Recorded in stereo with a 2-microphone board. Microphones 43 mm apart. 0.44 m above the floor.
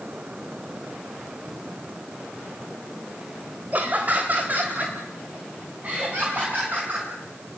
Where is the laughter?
40° right (ahead or behind), 1.8 m; by 7.1 s 35° right (ahead or behind), 5 m.